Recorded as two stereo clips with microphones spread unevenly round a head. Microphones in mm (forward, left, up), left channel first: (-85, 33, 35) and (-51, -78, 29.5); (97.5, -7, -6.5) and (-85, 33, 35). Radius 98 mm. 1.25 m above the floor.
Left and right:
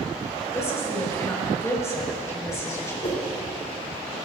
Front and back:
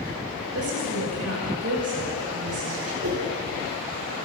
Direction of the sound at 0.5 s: 170° left.